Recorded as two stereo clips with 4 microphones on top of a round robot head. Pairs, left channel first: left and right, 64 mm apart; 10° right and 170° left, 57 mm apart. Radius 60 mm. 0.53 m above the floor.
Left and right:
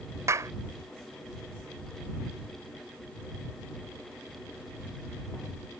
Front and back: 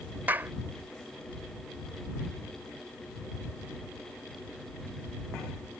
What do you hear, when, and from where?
0.3 s a clap: 130° right